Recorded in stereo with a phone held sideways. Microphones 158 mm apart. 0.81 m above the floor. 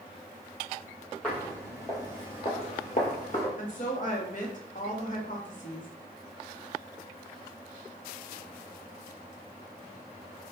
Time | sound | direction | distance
1.2 | footsteps | 5° left (ahead or behind) | 1.6 m
3.6 | a woman speaking | 55° left (ahead or behind) | 0.8 m